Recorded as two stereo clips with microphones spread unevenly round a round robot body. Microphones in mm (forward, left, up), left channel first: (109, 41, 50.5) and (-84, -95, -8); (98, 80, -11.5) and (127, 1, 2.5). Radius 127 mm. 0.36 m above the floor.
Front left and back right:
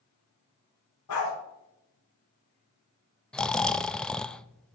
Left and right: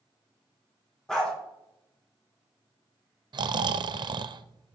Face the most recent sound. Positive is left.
turn(degrees=-65)